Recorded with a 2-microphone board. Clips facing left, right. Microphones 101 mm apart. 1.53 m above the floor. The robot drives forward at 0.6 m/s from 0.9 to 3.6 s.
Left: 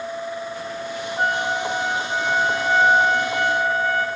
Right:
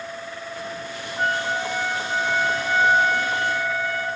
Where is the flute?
40° left (ahead or behind), 5 m; by 4.1 s 50° left (ahead or behind), 4 m.